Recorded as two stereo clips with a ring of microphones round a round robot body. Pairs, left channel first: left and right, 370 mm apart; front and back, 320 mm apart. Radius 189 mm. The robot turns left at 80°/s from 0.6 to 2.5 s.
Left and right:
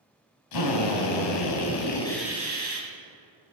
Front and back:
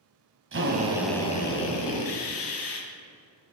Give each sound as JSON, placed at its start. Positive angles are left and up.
{"t": 0.5, "sound": "a drill", "azimuth_deg": 130, "distance_m": 2.5}